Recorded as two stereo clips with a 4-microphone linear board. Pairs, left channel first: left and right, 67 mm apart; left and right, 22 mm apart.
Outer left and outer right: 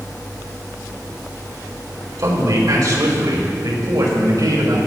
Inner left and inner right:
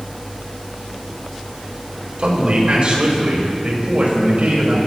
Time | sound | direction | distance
2.2 | a man speaking | 55° right (ahead or behind) | 4 m